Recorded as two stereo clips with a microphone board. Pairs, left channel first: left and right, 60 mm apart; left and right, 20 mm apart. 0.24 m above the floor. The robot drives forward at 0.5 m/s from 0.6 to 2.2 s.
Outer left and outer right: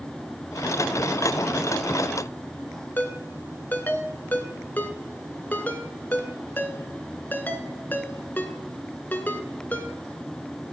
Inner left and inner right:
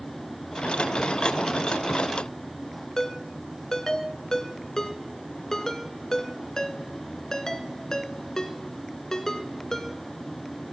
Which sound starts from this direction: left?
A ringtone, at 3.0 s.